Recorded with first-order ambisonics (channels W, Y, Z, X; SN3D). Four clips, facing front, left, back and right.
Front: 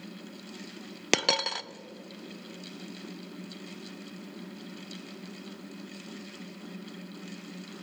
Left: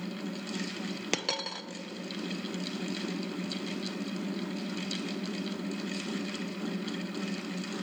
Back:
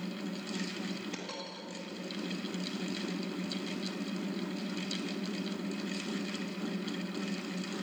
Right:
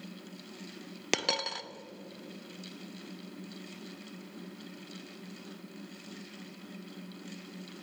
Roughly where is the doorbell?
No doorbell in this recording.